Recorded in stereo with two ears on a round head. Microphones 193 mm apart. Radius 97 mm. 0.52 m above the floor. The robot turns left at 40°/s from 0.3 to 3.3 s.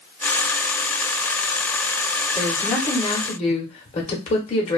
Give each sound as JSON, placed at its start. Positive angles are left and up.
{"t": 2.4, "sound": "a woman speaking", "azimuth_deg": 180, "distance_m": 1.1}